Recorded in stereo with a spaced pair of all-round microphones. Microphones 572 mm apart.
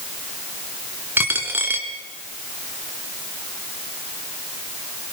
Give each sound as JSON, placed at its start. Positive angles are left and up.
{"t": 1.2, "sound": "a dropped coin", "side_deg": -5, "distance_m": 2.0}